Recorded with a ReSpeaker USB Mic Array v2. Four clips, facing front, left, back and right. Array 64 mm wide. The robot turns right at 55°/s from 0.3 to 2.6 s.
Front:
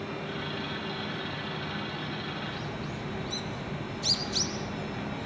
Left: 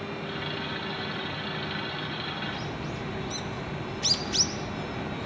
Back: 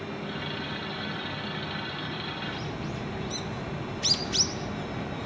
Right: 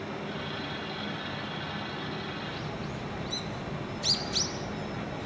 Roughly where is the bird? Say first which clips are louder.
Left 2 dB, back 2 dB; behind left.